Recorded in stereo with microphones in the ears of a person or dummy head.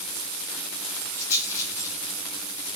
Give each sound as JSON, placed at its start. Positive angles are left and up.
{"t": 1.2, "sound": "a rattle", "side_deg": 15, "distance_m": 6.5}